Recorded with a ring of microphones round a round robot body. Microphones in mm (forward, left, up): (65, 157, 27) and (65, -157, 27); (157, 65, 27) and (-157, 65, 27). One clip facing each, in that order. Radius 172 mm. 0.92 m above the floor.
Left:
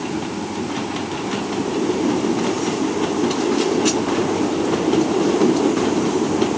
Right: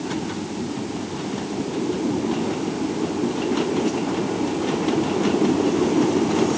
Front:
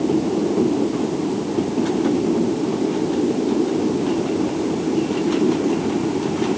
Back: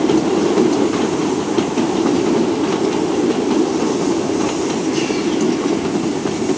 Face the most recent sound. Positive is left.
No sound to turn to.